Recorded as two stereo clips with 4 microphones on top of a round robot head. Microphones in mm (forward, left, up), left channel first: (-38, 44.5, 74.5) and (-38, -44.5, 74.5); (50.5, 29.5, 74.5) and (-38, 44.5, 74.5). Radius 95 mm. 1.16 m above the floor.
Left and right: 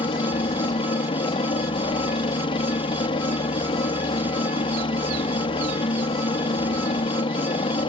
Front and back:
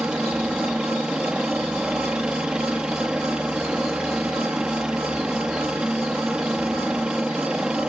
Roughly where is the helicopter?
Left.